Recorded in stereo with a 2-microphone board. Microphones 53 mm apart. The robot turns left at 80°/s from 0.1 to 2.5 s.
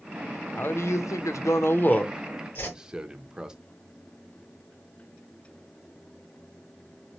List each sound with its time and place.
0.6 s a man speaking: 35° left (ahead or behind), 0.6 m; by 3.5 s 15° right (ahead or behind), 0.6 m
2.5 s a whoosh: 45° left (ahead or behind), 2.0 m